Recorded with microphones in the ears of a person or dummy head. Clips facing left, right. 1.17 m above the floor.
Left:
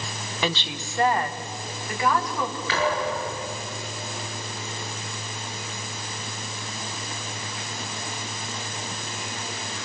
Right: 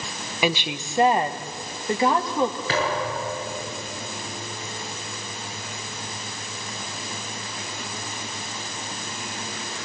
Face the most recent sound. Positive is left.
turn(degrees=-25)  # may be behind; listen again after turning